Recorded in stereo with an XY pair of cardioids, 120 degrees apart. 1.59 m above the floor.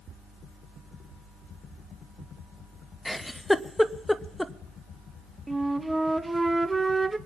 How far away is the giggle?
About 0.8 m.